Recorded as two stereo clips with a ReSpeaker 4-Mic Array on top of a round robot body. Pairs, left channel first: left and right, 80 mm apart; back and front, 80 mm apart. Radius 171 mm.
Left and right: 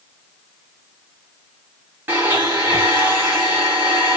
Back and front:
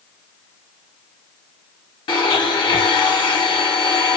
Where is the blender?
155° right, 0.6 m.